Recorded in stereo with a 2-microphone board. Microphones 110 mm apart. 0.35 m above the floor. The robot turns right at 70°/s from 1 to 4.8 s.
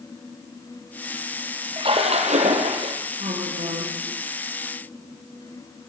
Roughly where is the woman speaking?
Behind right.